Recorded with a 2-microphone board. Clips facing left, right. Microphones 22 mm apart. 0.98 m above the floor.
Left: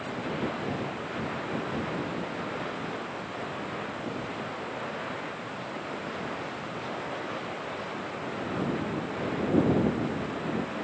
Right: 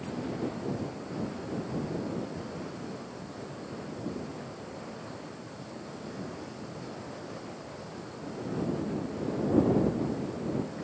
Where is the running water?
70° left (ahead or behind).